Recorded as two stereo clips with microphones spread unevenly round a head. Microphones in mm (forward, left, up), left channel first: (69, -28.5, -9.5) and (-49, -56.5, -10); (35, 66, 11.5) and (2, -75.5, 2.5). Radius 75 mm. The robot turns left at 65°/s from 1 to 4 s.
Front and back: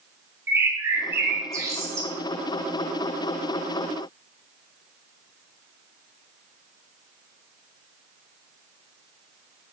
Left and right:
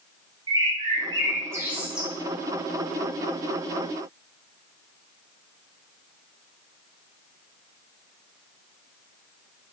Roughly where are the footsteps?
I don't hear footsteps.